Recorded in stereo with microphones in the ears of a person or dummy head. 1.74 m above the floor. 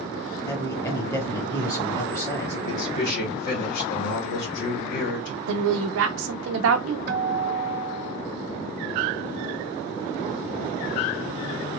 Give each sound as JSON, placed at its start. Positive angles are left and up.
{"t": 0.5, "sound": "a man speaking", "side_deg": 15, "distance_m": 1.3}
{"t": 2.6, "sound": "a man speaking", "side_deg": 60, "distance_m": 1.8}
{"t": 5.5, "sound": "a woman speaking", "side_deg": -80, "distance_m": 0.5}
{"t": 7.1, "sound": "a guitar", "side_deg": -60, "distance_m": 0.6}